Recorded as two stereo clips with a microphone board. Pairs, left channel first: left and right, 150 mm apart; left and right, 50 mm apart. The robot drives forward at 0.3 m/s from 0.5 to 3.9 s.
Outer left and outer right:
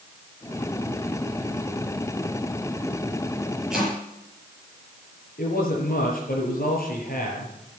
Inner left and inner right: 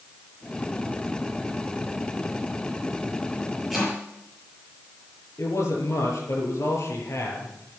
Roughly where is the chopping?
Centre.